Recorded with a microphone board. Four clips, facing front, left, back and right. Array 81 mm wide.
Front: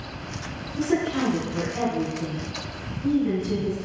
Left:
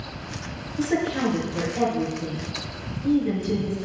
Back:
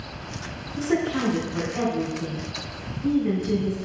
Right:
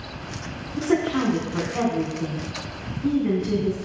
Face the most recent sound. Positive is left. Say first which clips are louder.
# right 2 dB, even
turn(degrees=-90)